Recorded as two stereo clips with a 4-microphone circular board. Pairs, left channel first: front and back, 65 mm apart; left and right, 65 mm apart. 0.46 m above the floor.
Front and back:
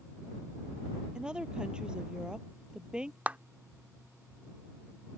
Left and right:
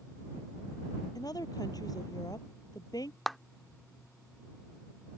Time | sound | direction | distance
1.1 | a woman speaking | 105° left | ?
3.3 | a clap | 175° left | ?